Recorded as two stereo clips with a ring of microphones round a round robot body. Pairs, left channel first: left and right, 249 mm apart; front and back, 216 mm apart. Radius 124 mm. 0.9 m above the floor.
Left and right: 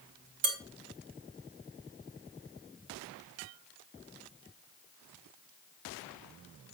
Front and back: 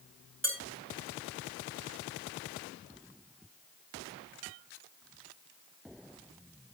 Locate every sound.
0.4 s dishes clattering: 90° right, 4 m